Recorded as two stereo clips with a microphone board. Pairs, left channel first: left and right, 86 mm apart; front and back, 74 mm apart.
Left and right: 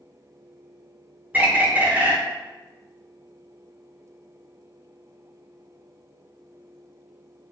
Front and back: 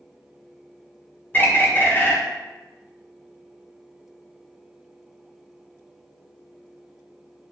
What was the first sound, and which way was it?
A bird, 35° right.